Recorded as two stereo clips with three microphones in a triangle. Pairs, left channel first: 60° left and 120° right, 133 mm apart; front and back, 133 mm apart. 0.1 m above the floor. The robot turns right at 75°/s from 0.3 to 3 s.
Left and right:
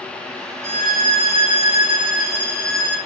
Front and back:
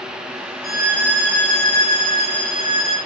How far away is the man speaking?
No man speaking in this recording.